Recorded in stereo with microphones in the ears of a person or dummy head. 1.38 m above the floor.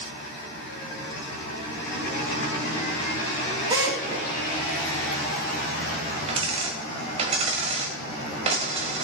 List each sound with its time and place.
3.7 s a drill: 25° right (ahead or behind), 4 m
6.3 s a dropped coin: 30° right (ahead or behind), 2 m